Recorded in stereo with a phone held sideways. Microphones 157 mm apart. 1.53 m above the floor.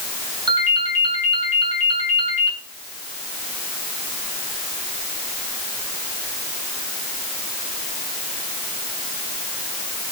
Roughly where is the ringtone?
Right.